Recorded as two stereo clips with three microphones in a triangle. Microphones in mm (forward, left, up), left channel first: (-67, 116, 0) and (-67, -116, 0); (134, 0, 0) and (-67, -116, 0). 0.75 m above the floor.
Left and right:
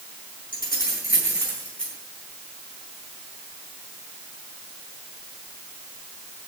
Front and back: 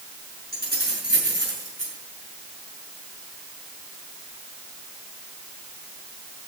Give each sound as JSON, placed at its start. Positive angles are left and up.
{"t": 0.5, "sound": "keys jangling", "azimuth_deg": 160, "distance_m": 6.5}